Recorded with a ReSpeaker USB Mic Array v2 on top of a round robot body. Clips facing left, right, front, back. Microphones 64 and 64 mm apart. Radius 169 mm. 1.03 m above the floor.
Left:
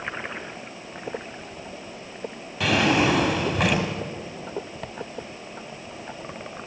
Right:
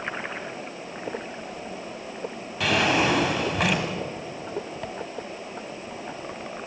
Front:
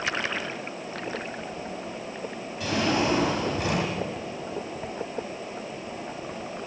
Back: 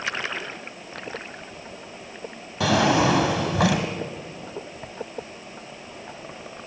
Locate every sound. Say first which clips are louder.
2.6 s a drawer: left 2 dB, back 6 dB; straight behind, 2 m